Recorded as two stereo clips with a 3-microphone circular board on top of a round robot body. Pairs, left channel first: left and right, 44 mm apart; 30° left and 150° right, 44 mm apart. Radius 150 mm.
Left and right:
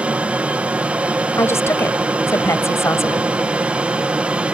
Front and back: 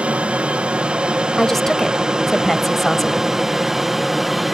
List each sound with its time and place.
0.0 s an aircraft: 115° right; by 4.5 s 65° right
1.4 s a woman speaking: 120° left